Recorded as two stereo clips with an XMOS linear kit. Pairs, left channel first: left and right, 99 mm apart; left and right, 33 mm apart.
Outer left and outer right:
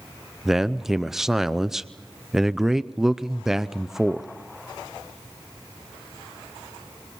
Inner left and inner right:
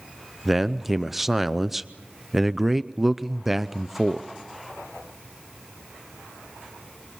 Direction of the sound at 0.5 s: 5° right (ahead or behind).